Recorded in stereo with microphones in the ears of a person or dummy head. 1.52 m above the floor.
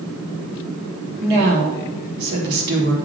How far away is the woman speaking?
About 3 m.